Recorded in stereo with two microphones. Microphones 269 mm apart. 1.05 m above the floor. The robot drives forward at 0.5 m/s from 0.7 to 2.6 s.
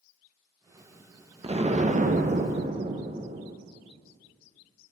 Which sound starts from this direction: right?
An explosion, at 1.4 s.